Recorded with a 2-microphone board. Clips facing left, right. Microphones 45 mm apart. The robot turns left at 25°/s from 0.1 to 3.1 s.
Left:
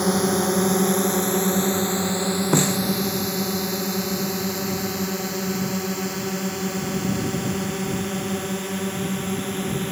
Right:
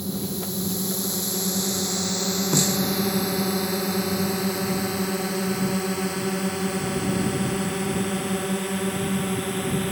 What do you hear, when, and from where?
0.0 s a drone: 70° left (ahead or behind); by 9.9 s centre (ahead or behind)
2.5 s a snare drum: 25° left (ahead or behind); by 2.8 s 30° left (ahead or behind)